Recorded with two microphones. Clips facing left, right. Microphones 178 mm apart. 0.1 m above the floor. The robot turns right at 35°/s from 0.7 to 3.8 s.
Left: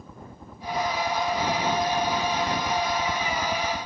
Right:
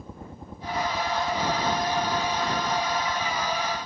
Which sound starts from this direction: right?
A helicopter, at 0.0 s.